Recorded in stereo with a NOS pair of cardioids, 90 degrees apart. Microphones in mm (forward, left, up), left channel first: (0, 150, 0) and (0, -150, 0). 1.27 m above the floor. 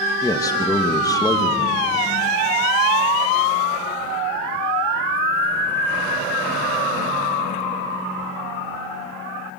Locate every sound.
0.2 s a man speaking: 10° left, 1.8 m